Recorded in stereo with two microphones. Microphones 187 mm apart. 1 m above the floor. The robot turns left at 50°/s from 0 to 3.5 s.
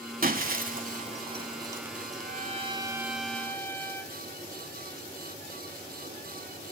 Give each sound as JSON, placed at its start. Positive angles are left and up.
{"t": 0.2, "sound": "breaking glass", "side_deg": -50, "distance_m": 1.2}
{"t": 2.1, "sound": "a trumpet", "azimuth_deg": -125, "distance_m": 1.1}